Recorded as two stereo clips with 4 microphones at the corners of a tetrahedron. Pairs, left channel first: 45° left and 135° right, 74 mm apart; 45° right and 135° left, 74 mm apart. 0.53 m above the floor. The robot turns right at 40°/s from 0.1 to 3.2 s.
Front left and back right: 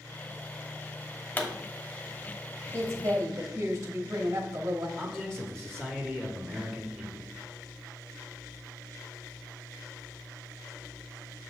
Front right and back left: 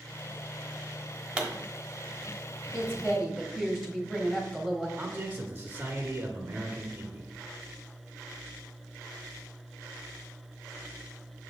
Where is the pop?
75° left, 1.0 m; by 1.5 s 80° left, 1.0 m.